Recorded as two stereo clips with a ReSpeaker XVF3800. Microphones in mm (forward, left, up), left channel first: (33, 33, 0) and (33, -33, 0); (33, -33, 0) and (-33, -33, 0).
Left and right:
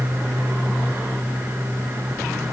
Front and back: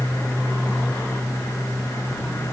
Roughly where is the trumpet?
No trumpet in this recording.